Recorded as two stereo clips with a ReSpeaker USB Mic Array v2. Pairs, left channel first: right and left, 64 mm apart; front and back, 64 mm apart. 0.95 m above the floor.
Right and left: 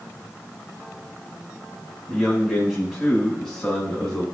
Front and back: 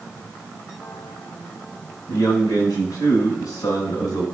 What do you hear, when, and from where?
2.1 s a man speaking: 5° left, 6 m; by 4.2 s 10° right, 5.5 m